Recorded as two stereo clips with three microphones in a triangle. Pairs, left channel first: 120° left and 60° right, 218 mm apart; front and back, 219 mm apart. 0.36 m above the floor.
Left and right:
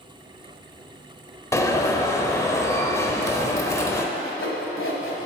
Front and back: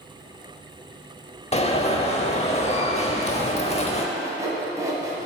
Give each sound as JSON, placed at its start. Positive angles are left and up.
{"t": 1.5, "sound": "an alarm", "azimuth_deg": 50, "distance_m": 0.8}
{"t": 4.2, "sound": "sawing", "azimuth_deg": 110, "distance_m": 1.4}